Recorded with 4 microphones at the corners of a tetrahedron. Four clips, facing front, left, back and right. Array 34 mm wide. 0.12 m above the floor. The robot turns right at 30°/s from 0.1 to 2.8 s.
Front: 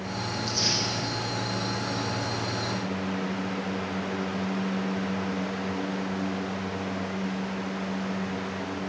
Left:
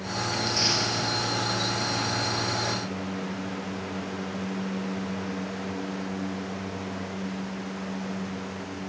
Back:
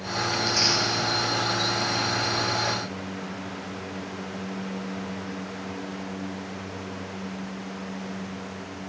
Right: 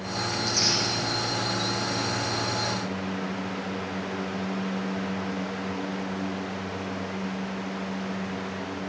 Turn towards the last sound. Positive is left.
turn(degrees=-125)